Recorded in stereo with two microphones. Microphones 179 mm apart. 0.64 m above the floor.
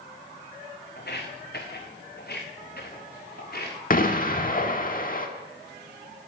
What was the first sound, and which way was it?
Footsteps, 65° left (ahead or behind).